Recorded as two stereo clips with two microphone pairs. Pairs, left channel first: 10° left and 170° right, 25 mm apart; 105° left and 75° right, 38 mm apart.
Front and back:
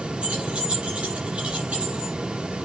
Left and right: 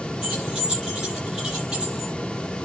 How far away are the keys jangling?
About 6.5 m.